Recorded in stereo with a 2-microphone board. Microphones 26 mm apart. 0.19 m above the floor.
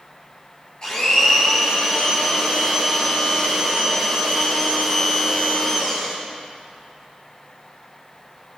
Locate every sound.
0.8 s a blender: 30° left (ahead or behind), 4.5 m